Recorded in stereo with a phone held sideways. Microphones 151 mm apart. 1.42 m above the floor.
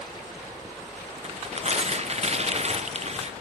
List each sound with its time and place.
1.2 s tearing paper: 45° right (ahead or behind), 0.7 m